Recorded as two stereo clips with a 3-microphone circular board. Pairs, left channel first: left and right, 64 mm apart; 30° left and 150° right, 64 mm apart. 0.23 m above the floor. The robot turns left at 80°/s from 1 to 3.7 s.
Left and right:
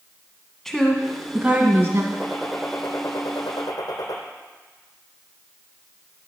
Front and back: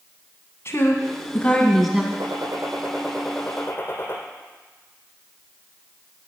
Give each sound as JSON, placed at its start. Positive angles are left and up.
{"t": 0.7, "sound": "a woman speaking", "azimuth_deg": 10, "distance_m": 1.9}
{"t": 2.1, "sound": "a gunshot", "azimuth_deg": -155, "distance_m": 3.0}